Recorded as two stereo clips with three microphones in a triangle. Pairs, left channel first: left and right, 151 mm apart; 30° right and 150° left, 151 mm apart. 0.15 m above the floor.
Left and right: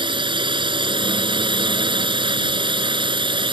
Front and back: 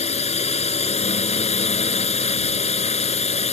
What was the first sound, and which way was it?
A drone, 45° right.